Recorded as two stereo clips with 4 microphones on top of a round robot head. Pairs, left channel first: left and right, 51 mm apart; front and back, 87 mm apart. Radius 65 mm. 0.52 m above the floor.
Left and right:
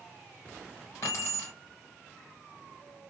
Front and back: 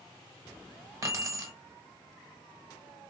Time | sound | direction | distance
1.0 | keys jangling | 130° left | 1.3 m